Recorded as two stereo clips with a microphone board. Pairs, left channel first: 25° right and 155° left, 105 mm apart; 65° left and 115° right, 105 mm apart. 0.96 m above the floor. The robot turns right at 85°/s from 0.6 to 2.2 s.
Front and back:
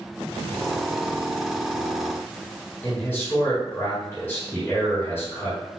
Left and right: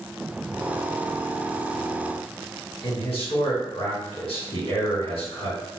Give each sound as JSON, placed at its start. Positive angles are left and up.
{"t": 2.8, "sound": "a man speaking", "azimuth_deg": 45, "distance_m": 2.0}